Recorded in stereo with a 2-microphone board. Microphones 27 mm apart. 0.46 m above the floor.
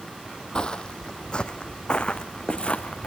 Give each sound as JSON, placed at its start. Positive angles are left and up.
{"t": 0.6, "sound": "footsteps", "side_deg": 25, "distance_m": 0.8}